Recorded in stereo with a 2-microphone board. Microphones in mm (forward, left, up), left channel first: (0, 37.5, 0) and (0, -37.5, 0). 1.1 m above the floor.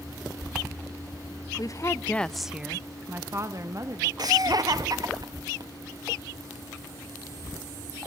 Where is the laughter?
55° right (ahead or behind), 1.8 m.